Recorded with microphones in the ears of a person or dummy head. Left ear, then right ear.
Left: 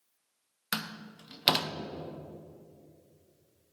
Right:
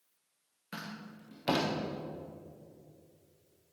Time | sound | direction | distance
0.7 | a door slam | 60° left (ahead or behind) | 0.6 m